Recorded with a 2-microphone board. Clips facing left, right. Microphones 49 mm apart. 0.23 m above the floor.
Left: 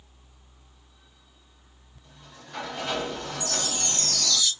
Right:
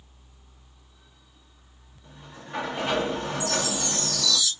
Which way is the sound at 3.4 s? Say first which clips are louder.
Right 4 dB; 65° left (ahead or behind).